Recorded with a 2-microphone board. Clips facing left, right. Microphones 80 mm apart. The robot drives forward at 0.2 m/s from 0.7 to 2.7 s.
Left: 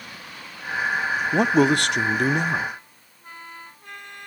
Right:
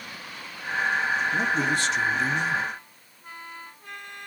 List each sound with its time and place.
1.3 s a man speaking: 70° left (ahead or behind), 0.6 m; by 2.7 s 50° left (ahead or behind), 0.7 m